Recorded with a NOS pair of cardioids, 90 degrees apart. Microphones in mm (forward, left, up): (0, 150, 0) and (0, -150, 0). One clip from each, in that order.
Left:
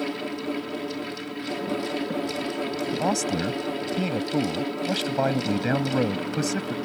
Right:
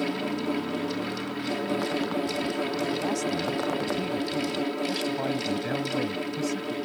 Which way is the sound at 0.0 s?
5° right.